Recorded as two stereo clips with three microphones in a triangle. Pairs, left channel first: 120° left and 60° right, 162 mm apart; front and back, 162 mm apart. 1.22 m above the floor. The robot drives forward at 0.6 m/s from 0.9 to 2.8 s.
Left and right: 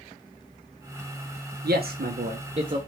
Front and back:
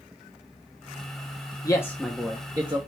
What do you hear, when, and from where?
1.6 s a man speaking: 65° right, 0.7 m; by 2.8 s 125° right, 0.7 m